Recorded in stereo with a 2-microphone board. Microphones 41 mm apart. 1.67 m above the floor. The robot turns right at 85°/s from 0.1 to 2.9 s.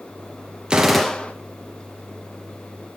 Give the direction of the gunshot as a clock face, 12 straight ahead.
1 o'clock.